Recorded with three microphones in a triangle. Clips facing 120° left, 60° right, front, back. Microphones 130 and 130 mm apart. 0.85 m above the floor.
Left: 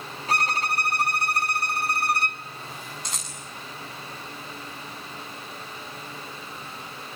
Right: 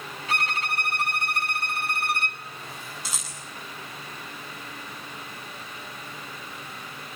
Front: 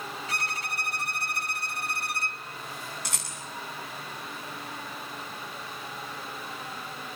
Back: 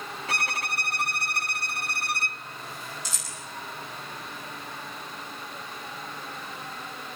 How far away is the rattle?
About 7.5 m.